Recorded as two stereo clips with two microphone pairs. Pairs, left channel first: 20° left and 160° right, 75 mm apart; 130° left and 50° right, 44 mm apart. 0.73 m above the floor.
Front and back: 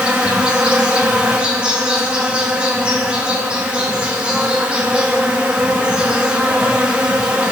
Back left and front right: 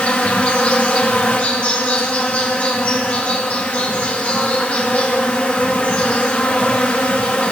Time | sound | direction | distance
0.0 | an insect | 145° left | 1.2 m